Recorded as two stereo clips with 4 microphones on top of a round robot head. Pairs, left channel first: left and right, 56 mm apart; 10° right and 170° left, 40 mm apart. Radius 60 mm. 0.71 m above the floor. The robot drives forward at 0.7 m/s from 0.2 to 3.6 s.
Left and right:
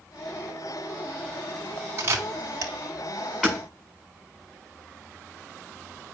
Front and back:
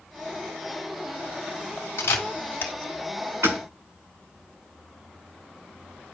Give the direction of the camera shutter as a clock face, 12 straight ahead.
1 o'clock.